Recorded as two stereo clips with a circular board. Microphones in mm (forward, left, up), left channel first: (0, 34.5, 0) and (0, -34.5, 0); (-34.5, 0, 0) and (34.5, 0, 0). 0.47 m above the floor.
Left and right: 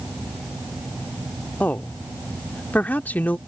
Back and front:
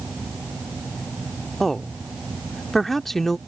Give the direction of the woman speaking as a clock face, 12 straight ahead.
9 o'clock.